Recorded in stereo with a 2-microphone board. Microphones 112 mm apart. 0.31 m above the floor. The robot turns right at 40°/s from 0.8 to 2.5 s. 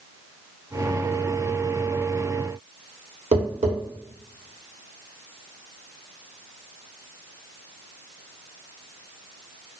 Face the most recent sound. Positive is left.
turn(degrees=-80)